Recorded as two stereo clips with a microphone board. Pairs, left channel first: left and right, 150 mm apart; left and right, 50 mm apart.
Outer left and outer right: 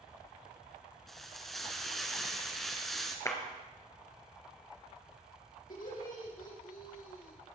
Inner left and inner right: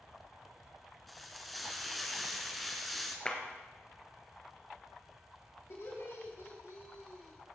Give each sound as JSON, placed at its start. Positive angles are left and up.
{"t": 1.1, "sound": "frying", "side_deg": 0, "distance_m": 1.5}
{"t": 3.2, "sound": "a clap", "side_deg": 20, "distance_m": 1.6}
{"t": 5.7, "sound": "laughter", "side_deg": 70, "distance_m": 4.5}